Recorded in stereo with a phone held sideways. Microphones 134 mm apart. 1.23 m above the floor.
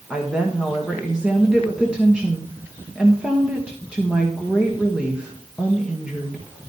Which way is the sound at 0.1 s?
5° right (ahead or behind).